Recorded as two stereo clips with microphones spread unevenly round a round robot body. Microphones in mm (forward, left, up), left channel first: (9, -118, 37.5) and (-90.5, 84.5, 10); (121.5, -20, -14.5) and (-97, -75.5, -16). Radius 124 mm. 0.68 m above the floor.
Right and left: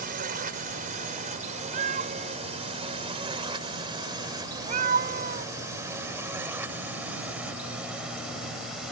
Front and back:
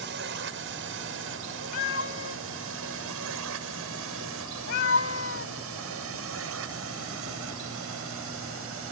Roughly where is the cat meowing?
Ahead left.